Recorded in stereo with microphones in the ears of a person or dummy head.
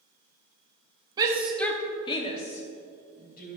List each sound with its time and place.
1.2 s a shout: 20° right (ahead or behind), 1.0 m; by 3.6 s 55° left (ahead or behind), 2.5 m